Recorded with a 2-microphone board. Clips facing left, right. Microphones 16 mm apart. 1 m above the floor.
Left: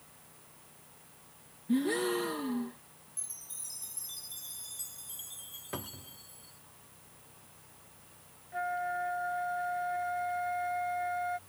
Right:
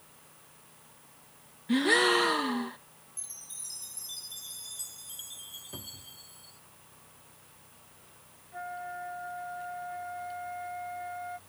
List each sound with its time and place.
1.7 s a gasp: 50° right (ahead or behind)
3.2 s a chime: 10° right (ahead or behind)
5.7 s a cupboard door: 50° left (ahead or behind)
8.5 s a flute: 25° left (ahead or behind)